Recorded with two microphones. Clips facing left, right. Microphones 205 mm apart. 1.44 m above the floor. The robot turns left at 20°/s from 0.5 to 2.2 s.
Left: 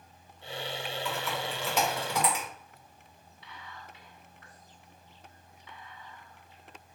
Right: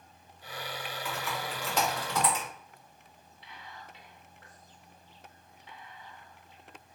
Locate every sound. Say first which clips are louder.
1.1 s typing on a keyboard: left 1 dB; 5° right (ahead or behind), 1.7 m; by 2.5 s 15° left (ahead or behind), 1.7 m
3.4 s whispering: left 1 dB; 35° right (ahead or behind), 1.7 m